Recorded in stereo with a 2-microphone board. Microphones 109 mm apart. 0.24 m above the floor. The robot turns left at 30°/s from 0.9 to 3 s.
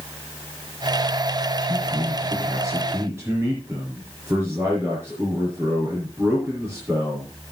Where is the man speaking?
115° right, 4.5 m; by 7.3 s 155° right, 4.5 m.